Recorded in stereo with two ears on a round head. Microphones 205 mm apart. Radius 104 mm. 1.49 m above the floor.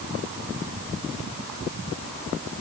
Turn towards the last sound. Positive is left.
No sound to turn to.